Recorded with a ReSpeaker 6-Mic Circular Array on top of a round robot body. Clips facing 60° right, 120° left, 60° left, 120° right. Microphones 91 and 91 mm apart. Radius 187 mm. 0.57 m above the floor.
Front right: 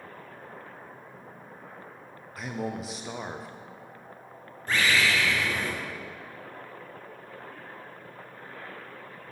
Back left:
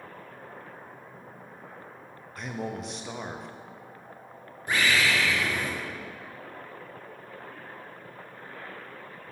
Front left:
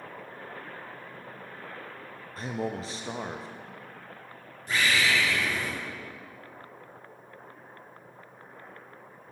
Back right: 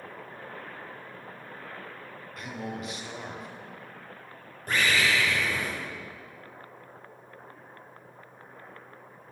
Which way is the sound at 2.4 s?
25° left.